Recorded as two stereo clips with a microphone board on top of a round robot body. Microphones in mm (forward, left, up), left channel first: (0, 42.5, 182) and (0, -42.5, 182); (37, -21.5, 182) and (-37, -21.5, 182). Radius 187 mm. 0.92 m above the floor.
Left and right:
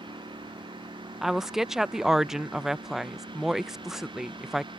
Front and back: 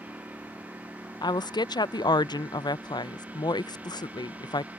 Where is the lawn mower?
110° right.